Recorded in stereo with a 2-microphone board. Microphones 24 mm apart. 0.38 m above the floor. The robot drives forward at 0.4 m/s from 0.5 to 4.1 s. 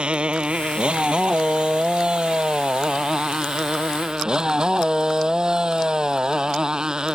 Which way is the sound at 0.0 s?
50° right (ahead or behind).